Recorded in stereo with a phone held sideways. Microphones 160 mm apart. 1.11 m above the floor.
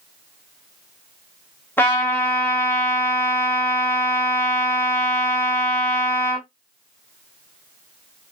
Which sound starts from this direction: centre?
A trumpet, at 1.8 s.